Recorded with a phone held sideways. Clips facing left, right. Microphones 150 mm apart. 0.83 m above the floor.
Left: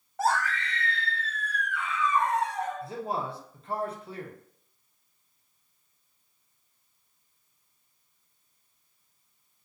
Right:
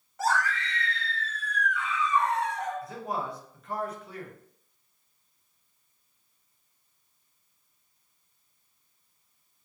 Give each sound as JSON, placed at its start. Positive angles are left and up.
{"t": 0.2, "sound": "a scream", "side_deg": 55, "distance_m": 1.5}
{"t": 2.8, "sound": "a man speaking", "side_deg": 30, "distance_m": 0.5}